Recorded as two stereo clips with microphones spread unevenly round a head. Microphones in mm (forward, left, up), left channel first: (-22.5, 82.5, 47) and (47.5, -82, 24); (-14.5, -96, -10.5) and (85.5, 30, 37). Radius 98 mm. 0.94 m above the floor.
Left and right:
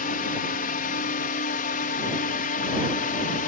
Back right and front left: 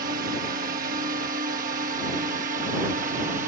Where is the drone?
90° left; by 3.5 s 95° left.